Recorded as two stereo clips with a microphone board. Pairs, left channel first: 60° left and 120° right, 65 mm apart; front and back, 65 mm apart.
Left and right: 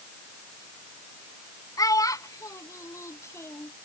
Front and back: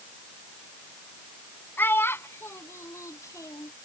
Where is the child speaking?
55° left; by 3.7 s 15° left.